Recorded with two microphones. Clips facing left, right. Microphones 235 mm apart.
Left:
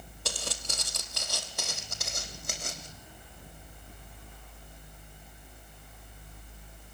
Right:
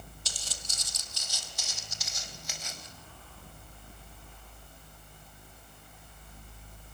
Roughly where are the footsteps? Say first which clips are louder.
Left 15 dB; left.